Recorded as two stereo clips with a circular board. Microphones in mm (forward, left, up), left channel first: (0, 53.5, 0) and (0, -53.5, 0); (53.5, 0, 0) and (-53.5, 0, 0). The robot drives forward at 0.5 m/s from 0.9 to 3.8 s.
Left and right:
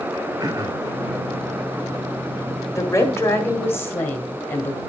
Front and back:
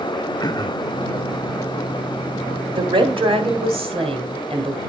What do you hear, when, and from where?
0.4 s throat clearing: 45° right, 0.9 m
2.7 s a woman speaking: 150° left, 1.5 m; by 4.8 s 160° left, 1.9 m